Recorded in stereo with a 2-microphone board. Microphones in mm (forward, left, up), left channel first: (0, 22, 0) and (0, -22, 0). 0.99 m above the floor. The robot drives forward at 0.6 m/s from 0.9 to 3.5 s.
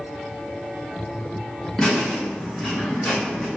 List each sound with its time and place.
1.8 s laughter: 10° left (ahead or behind), 1.6 m; by 3.5 s 5° left (ahead or behind), 2.5 m